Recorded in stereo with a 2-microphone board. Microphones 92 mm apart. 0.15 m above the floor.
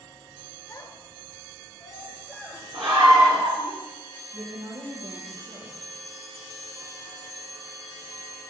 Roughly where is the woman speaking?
Right.